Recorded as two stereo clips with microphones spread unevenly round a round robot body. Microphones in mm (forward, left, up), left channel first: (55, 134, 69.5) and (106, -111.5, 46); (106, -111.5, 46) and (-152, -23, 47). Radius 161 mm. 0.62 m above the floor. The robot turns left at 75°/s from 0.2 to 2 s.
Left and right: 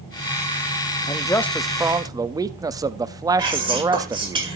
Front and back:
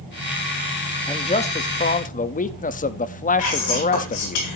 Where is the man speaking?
40° left, 0.8 m; by 4.4 s 30° right, 0.8 m.